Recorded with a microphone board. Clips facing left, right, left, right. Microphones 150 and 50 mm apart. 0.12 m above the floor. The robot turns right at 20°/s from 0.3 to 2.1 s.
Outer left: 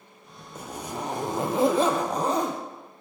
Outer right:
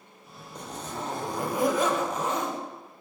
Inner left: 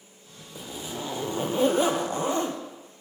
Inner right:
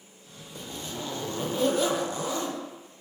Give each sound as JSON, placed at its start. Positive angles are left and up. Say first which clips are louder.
{"t": 0.6, "sound": "a zipper", "louder": "outer left 2 dB, inner left 2 dB", "azimuth_deg": 10, "distance_m": 2.5}